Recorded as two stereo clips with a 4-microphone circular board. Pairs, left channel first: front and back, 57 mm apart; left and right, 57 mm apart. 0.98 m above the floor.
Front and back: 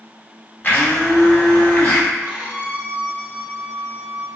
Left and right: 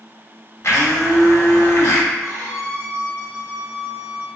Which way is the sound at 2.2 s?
110° right.